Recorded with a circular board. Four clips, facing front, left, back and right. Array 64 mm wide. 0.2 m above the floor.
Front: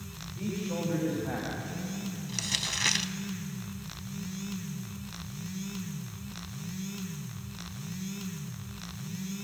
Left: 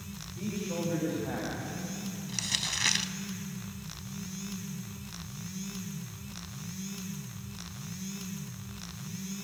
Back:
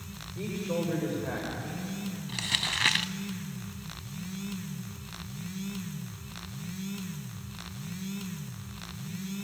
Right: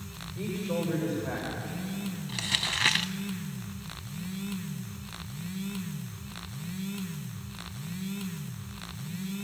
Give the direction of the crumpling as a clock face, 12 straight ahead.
4 o'clock.